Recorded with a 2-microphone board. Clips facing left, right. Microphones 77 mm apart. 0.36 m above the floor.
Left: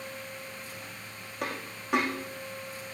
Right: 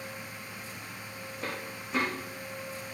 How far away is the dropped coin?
About 5 m.